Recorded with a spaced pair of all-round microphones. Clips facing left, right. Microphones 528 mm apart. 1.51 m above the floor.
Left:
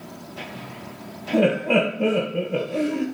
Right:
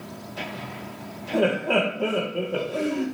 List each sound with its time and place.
1.3 s laughter: 45° left (ahead or behind), 1.7 m